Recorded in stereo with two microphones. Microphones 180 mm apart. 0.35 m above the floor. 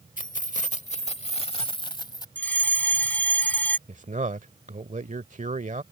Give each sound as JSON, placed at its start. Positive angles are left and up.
{"t": 0.2, "sound": "keys jangling", "side_deg": 45}
{"t": 2.4, "sound": "a fire alarm", "side_deg": 10}
{"t": 3.9, "sound": "a man speaking", "side_deg": -45}